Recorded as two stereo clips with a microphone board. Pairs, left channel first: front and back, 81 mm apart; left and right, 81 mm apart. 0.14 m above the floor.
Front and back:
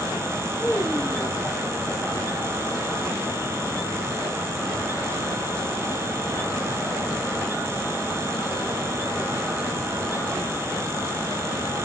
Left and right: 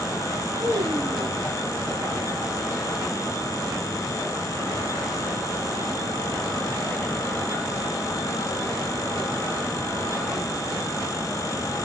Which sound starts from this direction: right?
A child speaking, at 0.6 s.